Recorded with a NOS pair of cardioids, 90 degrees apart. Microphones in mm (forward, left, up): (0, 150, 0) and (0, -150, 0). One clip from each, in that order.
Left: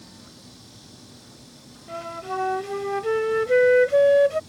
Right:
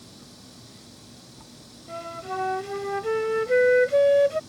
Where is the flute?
15° left.